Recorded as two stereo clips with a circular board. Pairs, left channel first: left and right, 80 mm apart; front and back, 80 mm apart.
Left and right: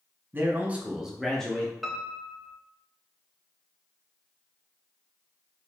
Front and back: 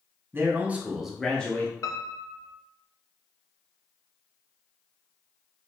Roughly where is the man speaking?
Behind right.